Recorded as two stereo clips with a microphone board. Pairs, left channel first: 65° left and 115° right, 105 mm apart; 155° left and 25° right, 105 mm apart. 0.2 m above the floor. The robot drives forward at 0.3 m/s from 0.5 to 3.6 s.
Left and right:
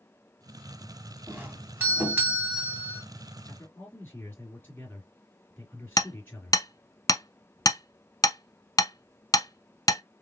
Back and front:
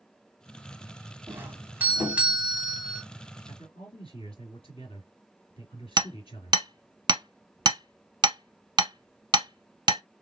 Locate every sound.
1.3 s a doorbell: 60° right, 1.8 m; by 3.0 s 100° right, 1.8 m
3.5 s a man speaking: 135° left, 4 m; by 6.6 s 140° left, 4 m
6.0 s hammering: 20° left, 0.5 m